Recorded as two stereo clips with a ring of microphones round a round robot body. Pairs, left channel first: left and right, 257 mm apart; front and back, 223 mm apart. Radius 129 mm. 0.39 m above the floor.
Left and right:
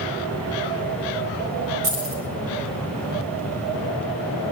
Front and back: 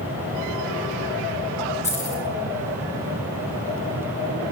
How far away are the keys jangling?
About 8.5 m.